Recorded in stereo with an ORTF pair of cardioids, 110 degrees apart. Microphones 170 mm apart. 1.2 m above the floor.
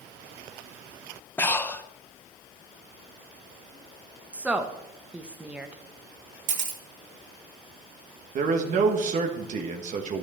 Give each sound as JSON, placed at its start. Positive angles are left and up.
{"t": 1.4, "sound": "breathing", "azimuth_deg": 10, "distance_m": 0.6}
{"t": 4.3, "sound": "a woman speaking", "azimuth_deg": -5, "distance_m": 1.1}
{"t": 6.5, "sound": "a camera shutter", "azimuth_deg": -45, "distance_m": 2.0}
{"t": 8.3, "sound": "a man speaking", "azimuth_deg": -45, "distance_m": 1.3}